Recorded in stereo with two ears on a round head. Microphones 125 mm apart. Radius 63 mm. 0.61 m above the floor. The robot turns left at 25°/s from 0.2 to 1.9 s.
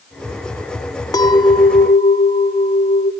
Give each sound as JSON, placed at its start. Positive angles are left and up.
{"t": 1.1, "sound": "a clink", "side_deg": 30, "distance_m": 0.9}